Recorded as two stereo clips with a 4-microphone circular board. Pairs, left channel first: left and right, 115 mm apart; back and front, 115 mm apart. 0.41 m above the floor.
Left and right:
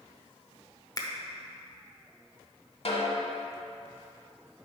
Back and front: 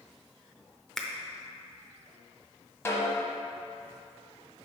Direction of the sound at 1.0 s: 100° left.